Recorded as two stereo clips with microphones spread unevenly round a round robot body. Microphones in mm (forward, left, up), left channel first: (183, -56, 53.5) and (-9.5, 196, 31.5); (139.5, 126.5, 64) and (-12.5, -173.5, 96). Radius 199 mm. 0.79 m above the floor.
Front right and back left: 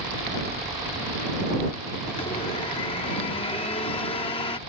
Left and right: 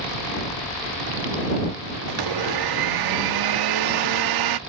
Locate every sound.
2.1 s a blender: 130° right